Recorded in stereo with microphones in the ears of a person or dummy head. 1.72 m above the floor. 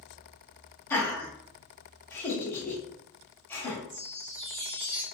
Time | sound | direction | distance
0.9 | laughter | 10° left (ahead or behind) | 1.3 m
3.9 | a chime | 50° right (ahead or behind) | 0.8 m